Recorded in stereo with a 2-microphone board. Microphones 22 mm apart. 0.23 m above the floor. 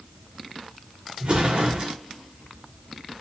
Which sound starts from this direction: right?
An explosion, at 1.2 s.